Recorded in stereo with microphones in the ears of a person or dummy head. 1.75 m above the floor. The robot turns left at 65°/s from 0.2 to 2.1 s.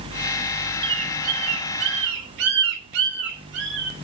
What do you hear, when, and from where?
0.8 s a bird: 20° right (ahead or behind), 0.8 m; by 4.0 s 65° right (ahead or behind), 0.8 m